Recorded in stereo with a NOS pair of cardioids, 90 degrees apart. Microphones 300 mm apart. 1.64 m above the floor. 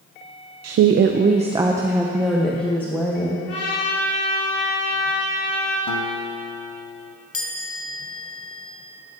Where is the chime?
50° left, 1.7 m.